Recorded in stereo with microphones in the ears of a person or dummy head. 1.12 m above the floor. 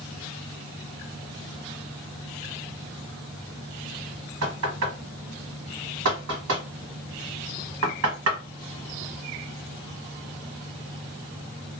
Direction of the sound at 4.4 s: 75° right (ahead or behind).